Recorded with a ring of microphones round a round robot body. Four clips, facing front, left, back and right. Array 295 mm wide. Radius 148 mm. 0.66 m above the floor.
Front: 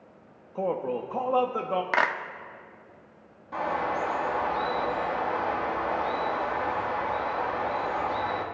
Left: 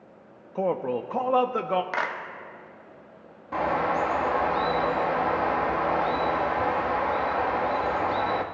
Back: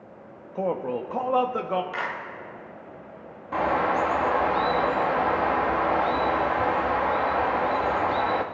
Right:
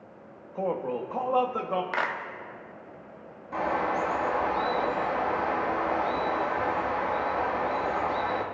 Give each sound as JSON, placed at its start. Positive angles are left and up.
{"t": 0.6, "sound": "a man speaking", "azimuth_deg": 110, "distance_m": 0.8}
{"t": 1.9, "sound": "a clap", "azimuth_deg": 5, "distance_m": 0.9}
{"t": 3.5, "sound": "a bird", "azimuth_deg": 155, "distance_m": 1.0}